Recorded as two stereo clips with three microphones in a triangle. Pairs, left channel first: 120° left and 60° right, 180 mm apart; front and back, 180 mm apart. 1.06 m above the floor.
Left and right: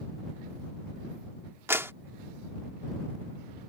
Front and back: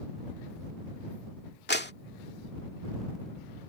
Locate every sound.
1.7 s a clap: 15° left